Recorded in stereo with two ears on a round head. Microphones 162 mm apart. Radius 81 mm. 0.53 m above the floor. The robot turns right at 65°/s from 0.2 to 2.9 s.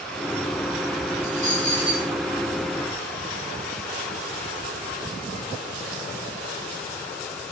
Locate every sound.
1.2 s a dropped coin: 80° left, 6 m; by 2.1 s 140° left, 6 m